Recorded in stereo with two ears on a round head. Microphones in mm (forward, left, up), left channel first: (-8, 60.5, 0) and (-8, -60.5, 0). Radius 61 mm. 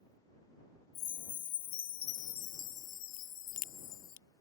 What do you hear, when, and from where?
0.9 s a chime: 60° left (ahead or behind)
3.2 s a crack: 60° left (ahead or behind)